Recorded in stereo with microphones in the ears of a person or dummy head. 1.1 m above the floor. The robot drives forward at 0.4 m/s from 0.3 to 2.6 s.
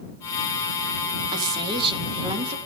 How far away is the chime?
I don't hear a chime.